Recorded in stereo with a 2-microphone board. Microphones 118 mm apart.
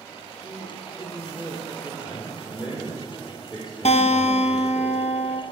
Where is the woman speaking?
30° right (ahead or behind), 3.5 m.